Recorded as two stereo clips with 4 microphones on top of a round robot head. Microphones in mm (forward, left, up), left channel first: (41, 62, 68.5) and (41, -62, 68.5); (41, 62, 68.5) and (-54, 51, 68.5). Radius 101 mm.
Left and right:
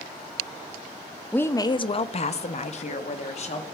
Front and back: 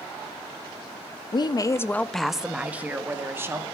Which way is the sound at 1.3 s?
15° left.